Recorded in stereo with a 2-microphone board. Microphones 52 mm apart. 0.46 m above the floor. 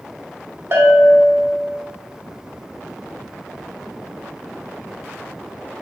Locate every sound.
0.7 s a bell: 45° right (ahead or behind), 0.8 m